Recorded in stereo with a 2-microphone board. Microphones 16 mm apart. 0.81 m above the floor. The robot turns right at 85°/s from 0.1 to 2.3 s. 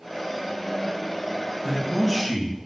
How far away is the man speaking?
About 0.9 m.